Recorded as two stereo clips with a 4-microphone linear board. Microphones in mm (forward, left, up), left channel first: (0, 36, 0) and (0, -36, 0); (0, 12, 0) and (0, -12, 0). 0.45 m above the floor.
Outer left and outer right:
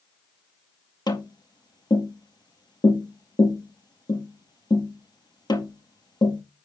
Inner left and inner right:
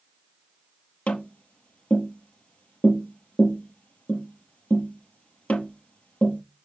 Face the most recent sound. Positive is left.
turn(degrees=80)